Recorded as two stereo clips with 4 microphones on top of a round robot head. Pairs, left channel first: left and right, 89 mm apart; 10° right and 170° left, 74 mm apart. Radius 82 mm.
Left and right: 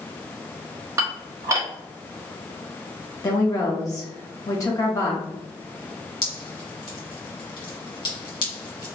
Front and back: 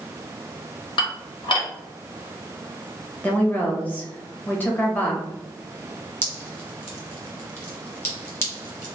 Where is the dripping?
45° left, 1.9 m.